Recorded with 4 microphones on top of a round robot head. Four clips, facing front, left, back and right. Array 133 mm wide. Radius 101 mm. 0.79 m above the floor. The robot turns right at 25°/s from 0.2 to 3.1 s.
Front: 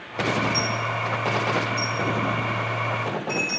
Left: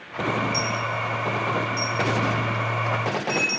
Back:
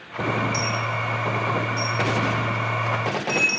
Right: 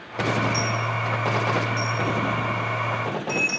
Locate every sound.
0.5 s a dropped coin: 170° left, 2.5 m; by 3.6 s 125° right, 2.5 m